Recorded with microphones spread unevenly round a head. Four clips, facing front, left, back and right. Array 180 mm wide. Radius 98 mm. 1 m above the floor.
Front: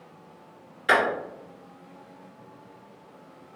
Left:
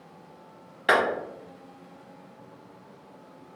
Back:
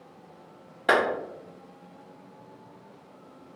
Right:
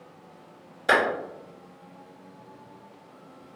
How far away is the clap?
About 1.8 m.